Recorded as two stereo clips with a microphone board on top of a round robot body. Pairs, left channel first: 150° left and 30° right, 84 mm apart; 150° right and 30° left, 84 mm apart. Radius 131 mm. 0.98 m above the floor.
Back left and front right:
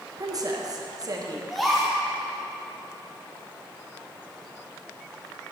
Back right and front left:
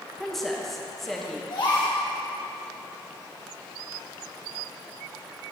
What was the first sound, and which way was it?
A woman speaking, 65° right.